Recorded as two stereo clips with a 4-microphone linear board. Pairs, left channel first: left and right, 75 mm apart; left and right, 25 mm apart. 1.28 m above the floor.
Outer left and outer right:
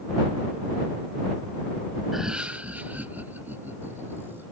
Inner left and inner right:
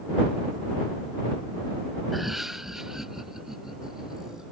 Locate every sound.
2.1 s laughter: 5° right (ahead or behind); by 4.5 s 30° right (ahead or behind)